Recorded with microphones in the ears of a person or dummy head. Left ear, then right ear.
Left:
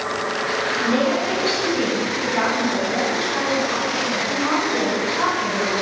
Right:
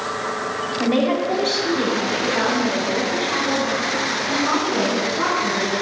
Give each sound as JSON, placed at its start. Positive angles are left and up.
{"t": 0.8, "sound": "a woman speaking", "side_deg": -45, "distance_m": 2.0}